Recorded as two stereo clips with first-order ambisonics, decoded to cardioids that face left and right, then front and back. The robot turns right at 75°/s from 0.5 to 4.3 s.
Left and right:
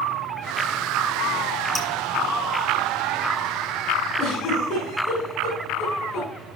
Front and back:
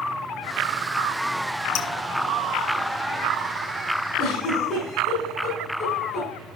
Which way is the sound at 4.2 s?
35° left.